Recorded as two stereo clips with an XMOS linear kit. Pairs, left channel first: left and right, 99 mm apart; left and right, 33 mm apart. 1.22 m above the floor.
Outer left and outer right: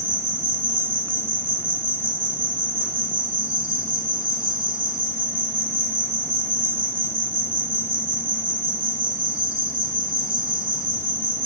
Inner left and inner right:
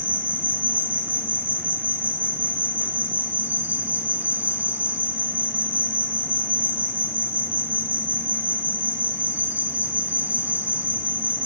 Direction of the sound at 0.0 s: 60° right (ahead or behind).